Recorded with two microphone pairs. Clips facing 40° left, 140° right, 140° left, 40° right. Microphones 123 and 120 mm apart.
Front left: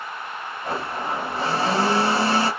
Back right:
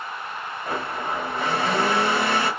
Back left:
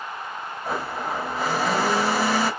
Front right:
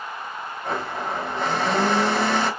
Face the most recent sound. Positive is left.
turn(degrees=60)